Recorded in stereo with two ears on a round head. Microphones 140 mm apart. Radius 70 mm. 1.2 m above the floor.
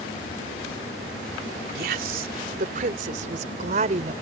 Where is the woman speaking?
65° right (ahead or behind); by 4.1 s 45° right (ahead or behind).